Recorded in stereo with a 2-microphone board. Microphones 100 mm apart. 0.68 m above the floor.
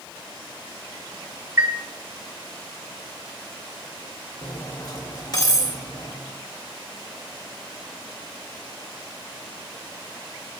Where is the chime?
25° right (ahead or behind), 1.5 m.